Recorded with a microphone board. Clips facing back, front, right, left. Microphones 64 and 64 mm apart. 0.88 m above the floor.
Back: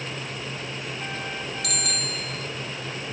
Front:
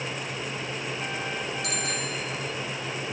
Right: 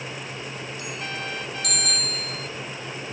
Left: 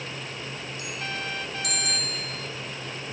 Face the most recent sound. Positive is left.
turn(degrees=-60)